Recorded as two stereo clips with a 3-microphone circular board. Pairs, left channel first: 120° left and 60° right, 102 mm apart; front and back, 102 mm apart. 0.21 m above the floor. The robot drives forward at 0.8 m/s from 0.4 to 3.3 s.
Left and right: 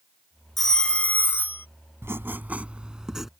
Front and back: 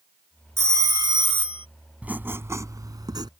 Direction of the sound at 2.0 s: 110° right.